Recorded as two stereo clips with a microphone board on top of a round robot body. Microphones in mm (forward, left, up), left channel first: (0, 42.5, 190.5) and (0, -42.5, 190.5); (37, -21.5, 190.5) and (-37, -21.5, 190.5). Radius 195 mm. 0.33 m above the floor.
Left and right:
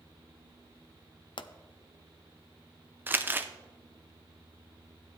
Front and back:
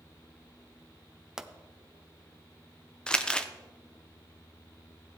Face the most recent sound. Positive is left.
turn(degrees=-60)